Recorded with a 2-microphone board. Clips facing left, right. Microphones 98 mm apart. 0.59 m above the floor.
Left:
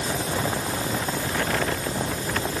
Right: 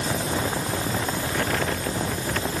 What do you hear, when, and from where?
Only background noise.